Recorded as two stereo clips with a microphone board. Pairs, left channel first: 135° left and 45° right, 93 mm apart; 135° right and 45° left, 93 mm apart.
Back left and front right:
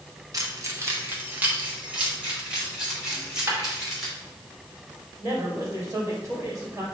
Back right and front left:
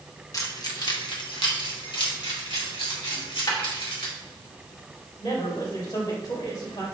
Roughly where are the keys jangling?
Right.